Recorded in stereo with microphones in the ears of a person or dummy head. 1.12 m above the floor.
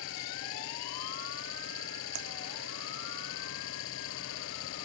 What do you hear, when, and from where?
0.0 s an engine running: 80° left
2.1 s typing on a keyboard: 85° right